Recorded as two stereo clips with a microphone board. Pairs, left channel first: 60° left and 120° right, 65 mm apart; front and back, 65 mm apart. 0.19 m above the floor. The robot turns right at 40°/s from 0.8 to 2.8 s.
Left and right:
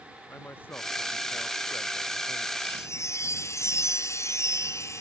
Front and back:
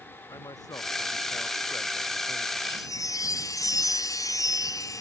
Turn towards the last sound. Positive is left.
turn(degrees=25)